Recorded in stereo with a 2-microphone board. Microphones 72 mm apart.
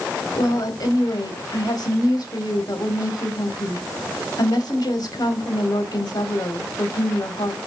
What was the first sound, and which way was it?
A woman speaking, 60° left (ahead or behind).